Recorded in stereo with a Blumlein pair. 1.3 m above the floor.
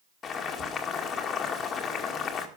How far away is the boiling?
About 2 m.